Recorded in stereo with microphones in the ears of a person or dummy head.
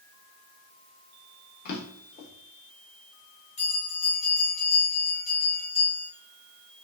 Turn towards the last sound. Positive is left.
turn(degrees=40)  # may be behind; listen again after turning